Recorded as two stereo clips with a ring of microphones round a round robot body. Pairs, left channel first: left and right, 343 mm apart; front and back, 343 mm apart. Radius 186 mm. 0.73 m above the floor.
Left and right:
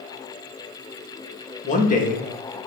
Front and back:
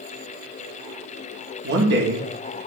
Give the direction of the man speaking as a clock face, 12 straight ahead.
7 o'clock.